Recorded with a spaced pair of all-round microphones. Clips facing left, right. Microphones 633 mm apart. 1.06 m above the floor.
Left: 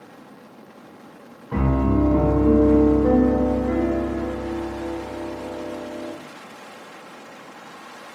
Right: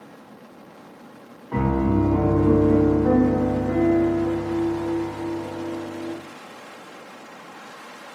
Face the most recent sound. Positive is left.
turn(degrees=35)  # may be behind; listen again after turning